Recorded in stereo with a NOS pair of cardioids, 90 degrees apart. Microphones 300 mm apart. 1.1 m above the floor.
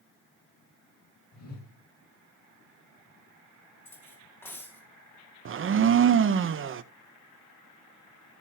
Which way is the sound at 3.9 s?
5° left.